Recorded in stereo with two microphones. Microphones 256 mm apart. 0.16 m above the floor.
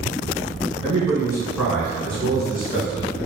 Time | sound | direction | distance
0.8 | a man speaking | 25° right (ahead or behind) | 1.5 m